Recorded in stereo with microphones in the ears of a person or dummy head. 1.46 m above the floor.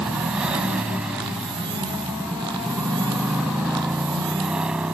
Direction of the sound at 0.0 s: 5° right (ahead or behind).